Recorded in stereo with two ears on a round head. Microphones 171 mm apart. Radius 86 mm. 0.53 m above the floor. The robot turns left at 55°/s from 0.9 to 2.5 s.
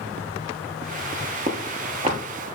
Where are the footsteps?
35° right (ahead or behind), 0.6 m; by 2.2 s 25° right (ahead or behind), 0.6 m.